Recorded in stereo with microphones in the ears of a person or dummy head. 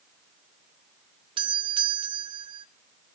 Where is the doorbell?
25° right (ahead or behind), 0.9 m.